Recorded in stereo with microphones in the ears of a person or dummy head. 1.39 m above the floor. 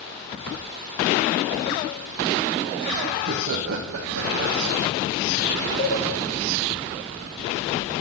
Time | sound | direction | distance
3.1 | laughter | 55° right (ahead or behind) | 0.7 m
5.8 | a cowbell | 10° left (ahead or behind) | 3.5 m